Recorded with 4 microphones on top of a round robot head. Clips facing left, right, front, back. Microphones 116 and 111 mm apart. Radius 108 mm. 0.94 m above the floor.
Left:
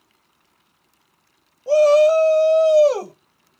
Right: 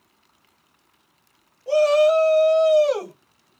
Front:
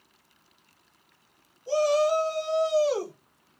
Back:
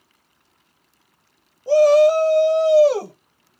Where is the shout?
155° left, 0.9 m.